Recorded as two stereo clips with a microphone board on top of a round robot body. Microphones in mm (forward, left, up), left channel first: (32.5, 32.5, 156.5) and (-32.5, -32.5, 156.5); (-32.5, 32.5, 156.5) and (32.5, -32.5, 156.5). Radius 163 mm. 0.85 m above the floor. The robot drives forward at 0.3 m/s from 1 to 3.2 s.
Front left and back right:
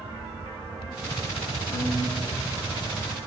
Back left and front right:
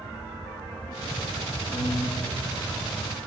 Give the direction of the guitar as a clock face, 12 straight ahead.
6 o'clock.